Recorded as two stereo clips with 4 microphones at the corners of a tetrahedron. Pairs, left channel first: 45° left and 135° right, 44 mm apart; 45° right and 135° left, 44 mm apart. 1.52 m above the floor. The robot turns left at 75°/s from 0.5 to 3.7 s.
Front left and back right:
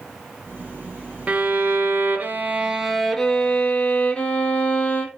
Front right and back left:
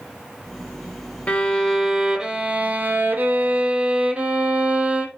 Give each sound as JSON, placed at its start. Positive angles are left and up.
{"t": 1.3, "sound": "a violin", "azimuth_deg": -90, "distance_m": 1.1}